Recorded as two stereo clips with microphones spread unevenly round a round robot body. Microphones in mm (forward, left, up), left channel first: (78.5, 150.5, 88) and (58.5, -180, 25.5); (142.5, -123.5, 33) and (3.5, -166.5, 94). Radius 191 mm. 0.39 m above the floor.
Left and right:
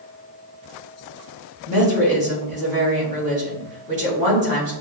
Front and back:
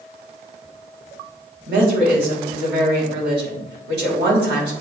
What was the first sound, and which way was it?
A woman speaking, 155° right.